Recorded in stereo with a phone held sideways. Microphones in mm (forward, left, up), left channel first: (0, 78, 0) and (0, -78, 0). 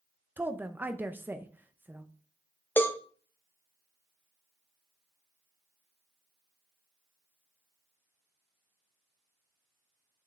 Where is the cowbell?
15° left (ahead or behind), 0.8 m.